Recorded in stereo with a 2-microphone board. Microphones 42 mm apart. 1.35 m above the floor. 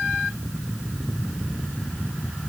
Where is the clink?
No clink in this recording.